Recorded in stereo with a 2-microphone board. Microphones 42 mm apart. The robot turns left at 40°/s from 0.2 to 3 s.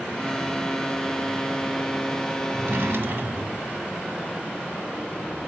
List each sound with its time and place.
2.5 s a drawer: 65° right (ahead or behind), 0.7 m